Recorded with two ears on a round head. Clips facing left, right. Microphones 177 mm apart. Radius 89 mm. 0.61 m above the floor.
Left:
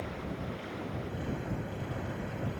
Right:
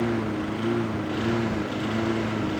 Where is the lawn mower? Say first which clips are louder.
Right 13 dB; 90° right; by 2.6 s 85° right.